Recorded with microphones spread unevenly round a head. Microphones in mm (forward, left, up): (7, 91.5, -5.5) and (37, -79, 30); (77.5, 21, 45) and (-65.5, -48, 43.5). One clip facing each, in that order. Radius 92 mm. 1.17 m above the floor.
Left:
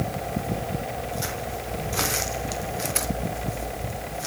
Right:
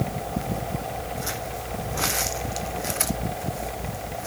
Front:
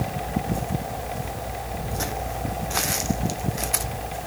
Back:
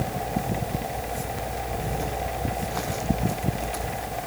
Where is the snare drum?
No snare drum in this recording.